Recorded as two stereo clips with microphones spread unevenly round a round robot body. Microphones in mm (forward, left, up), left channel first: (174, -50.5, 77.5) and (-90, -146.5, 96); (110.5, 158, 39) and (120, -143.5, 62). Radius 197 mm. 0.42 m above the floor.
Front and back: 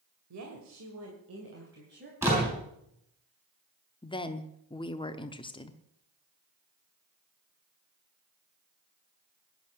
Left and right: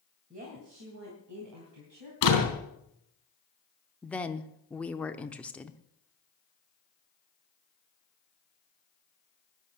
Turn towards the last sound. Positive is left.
turn(degrees=25)